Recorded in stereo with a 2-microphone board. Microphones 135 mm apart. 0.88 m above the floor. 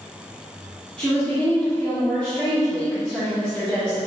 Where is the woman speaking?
10° left (ahead or behind), 1.8 m.